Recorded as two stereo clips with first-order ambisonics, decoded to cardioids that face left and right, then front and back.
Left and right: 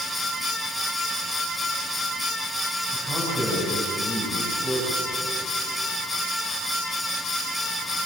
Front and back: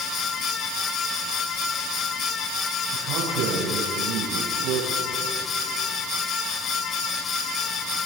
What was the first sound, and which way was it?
A man speaking, 170° left.